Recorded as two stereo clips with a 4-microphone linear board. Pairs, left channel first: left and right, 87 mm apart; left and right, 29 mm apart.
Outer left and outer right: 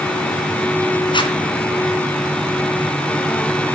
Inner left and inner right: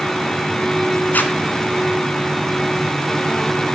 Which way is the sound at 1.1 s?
65° left (ahead or behind).